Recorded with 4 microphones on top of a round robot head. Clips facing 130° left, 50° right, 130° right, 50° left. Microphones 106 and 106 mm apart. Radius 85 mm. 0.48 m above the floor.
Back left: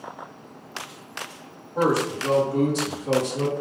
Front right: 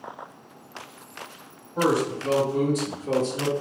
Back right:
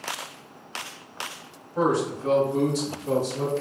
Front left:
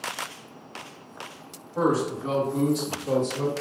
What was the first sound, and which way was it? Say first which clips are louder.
A man speaking: back left 1 dB, even; 130° left.